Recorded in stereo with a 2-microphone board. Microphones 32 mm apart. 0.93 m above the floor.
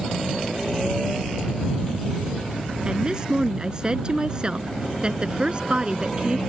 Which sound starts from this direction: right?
A woman speaking, at 2.9 s.